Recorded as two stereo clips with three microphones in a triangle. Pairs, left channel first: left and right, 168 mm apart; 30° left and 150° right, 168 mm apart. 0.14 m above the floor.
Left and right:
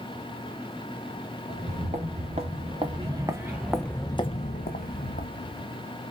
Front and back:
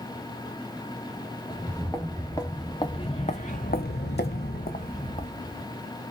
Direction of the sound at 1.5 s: 50° right.